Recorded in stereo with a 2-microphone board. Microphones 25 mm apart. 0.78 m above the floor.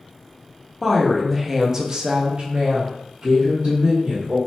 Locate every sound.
0.8 s a woman speaking: 10° left (ahead or behind), 0.7 m; by 4.4 s 40° right (ahead or behind), 1.3 m